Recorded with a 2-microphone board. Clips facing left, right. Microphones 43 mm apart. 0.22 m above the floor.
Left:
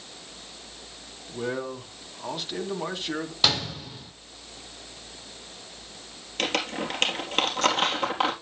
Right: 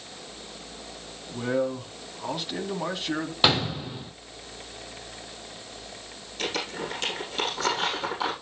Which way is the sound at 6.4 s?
55° left (ahead or behind).